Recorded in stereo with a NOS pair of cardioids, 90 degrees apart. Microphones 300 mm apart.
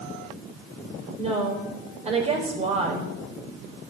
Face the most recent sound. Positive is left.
turn(degrees=-20)